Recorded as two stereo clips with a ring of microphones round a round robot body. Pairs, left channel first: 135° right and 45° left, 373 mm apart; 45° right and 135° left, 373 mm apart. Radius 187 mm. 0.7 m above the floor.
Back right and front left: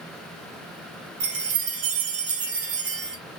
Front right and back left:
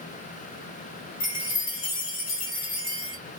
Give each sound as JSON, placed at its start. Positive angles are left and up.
{"t": 1.2, "sound": "a chime", "azimuth_deg": 25, "distance_m": 1.0}